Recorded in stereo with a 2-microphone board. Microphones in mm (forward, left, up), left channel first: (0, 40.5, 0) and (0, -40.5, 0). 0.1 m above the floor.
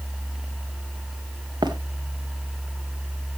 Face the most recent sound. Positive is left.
turn(degrees=-65)  # may be behind; listen again after turning